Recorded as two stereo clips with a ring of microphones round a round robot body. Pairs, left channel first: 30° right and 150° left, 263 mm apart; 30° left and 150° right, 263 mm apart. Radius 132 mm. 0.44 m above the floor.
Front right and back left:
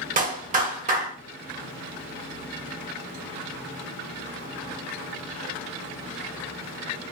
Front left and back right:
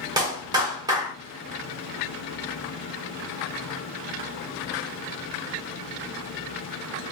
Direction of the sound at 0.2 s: 150° left.